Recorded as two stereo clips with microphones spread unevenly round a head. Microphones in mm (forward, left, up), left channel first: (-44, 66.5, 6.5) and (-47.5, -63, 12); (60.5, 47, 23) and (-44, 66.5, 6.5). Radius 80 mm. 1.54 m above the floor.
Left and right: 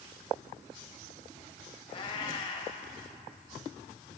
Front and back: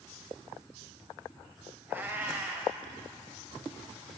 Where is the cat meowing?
95° left, 1.6 m.